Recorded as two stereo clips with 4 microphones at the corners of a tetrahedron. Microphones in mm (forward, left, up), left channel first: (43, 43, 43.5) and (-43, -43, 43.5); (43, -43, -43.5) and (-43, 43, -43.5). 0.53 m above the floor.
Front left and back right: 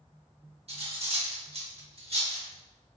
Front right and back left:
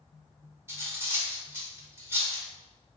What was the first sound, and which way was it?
Cutlery clinking, 160° right.